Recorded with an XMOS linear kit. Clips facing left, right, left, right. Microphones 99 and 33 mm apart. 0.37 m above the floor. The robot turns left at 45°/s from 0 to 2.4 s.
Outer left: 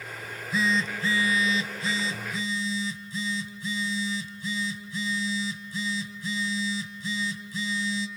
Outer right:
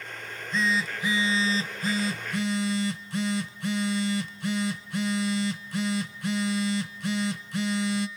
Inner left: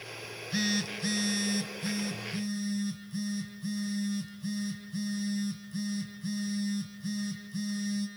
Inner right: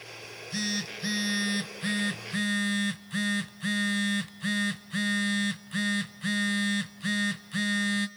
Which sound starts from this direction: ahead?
A phone buzzing, at 0.2 s.